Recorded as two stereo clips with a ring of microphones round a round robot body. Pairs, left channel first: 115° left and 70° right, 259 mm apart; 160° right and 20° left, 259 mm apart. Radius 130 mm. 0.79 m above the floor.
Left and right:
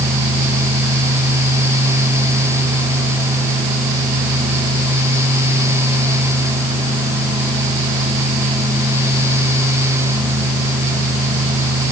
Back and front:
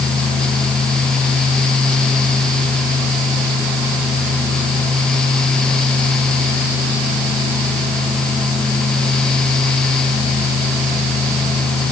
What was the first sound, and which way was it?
Only background noise.